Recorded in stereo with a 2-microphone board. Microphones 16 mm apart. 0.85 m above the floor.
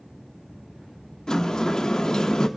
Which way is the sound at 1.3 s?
35° left (ahead or behind).